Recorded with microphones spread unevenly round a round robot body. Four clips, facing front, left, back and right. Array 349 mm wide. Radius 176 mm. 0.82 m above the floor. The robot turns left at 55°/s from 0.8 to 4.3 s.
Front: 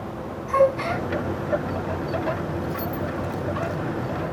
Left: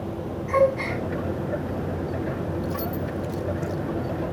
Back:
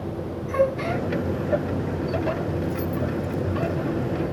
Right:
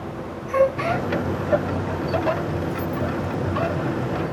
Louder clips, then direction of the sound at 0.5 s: Right 1 dB, front 3 dB; 45° left.